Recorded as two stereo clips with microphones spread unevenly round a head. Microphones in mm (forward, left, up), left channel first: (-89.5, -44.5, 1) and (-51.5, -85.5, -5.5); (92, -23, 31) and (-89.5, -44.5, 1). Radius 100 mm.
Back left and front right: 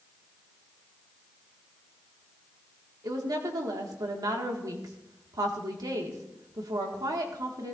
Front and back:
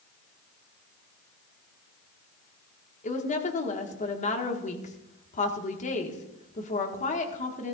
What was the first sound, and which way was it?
A woman speaking, 40° right.